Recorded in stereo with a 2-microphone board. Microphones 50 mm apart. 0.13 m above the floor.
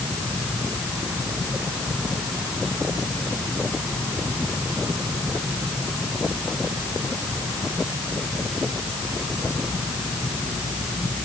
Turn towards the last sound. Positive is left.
No sound to turn to.